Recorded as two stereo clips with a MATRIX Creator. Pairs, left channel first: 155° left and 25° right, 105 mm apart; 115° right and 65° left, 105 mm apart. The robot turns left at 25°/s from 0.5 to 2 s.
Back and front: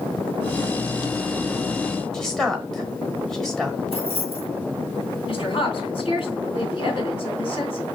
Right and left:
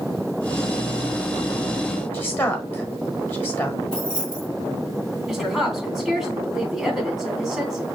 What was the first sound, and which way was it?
A woman speaking, 130° right.